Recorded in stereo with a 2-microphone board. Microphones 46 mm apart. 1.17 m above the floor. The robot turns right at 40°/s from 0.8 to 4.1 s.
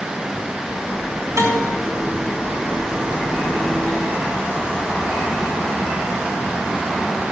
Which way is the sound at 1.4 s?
80° right.